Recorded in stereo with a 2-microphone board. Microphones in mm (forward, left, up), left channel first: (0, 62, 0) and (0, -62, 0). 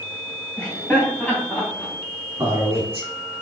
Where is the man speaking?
30° right (ahead or behind), 2.5 m.